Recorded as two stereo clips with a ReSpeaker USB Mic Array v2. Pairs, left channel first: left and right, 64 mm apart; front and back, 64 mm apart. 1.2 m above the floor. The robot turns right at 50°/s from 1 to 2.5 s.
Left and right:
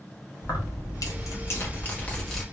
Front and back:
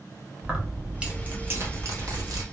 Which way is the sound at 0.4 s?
105° left.